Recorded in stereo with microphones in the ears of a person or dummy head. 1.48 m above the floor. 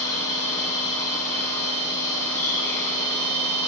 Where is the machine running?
15° left (ahead or behind), 3 m.